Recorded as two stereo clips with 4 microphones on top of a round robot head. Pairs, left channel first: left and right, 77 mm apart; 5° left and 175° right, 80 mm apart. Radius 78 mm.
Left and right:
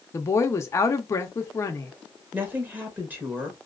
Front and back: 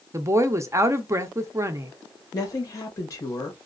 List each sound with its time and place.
0.1 s a woman speaking: 140° left, 0.6 m
2.3 s a woman speaking: 30° right, 1.2 m